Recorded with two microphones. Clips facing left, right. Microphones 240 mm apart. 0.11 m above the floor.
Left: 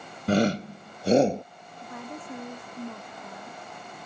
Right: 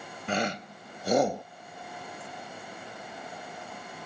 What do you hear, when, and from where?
0.3 s a shout: 40° left (ahead or behind); by 1.4 s 20° left (ahead or behind)
1.8 s a woman speaking: 80° left